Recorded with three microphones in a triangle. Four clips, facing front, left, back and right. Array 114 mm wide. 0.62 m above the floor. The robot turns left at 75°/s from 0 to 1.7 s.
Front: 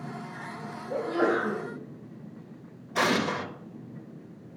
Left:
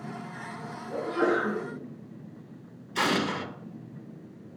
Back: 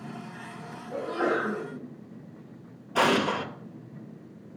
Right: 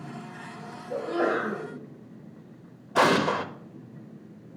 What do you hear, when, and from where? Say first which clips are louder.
0.9 s a sneeze: even, front 2 dB; 30° right, 4.5 m; by 1.6 s 85° right, 4.5 m
3.0 s an explosion: right 6 dB, back 2 dB; 100° right, 0.7 m